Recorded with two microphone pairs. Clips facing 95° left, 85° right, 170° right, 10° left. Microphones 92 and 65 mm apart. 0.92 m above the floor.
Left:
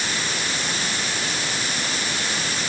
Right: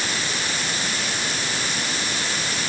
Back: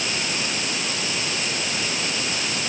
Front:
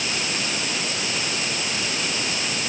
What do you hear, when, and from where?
Only background noise.